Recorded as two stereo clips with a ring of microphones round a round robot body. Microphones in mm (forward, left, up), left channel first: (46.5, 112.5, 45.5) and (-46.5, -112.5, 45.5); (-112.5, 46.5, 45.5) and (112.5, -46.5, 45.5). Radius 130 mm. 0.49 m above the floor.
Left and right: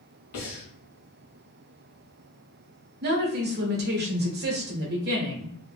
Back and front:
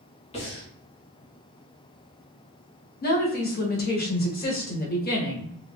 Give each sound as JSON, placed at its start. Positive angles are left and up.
{"t": 0.3, "sound": "breathing", "azimuth_deg": 90, "distance_m": 1.2}
{"t": 3.0, "sound": "a woman speaking", "azimuth_deg": -155, "distance_m": 1.2}